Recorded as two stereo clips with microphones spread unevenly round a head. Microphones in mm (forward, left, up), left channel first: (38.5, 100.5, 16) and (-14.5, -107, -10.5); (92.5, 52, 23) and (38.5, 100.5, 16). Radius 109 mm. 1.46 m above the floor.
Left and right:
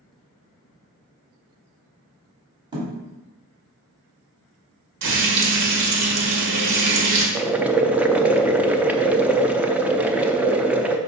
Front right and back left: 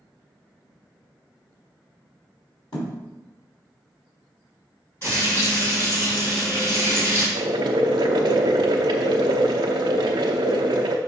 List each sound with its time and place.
2.7 s a thud: 35° right, 3 m
5.0 s frying: 120° right, 1.8 m
7.3 s boiling: 170° left, 0.5 m